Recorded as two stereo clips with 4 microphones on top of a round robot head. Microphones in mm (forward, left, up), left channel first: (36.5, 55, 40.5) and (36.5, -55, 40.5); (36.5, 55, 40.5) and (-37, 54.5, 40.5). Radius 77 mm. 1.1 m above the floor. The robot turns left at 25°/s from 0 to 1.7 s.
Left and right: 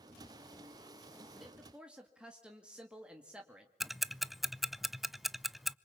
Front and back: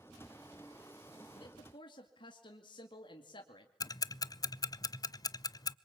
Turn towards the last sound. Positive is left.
turn(degrees=0)